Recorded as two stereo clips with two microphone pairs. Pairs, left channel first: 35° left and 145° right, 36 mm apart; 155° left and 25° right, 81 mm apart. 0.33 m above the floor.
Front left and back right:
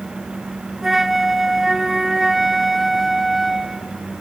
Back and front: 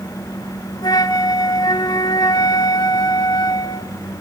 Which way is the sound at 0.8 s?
130° left.